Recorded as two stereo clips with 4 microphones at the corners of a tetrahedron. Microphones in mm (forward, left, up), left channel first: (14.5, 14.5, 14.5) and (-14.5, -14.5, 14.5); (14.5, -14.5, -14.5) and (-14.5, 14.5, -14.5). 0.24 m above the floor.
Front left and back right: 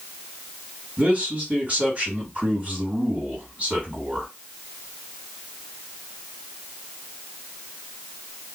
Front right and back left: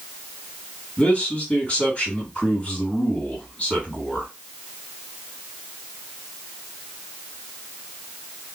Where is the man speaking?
90° right, 2.5 m.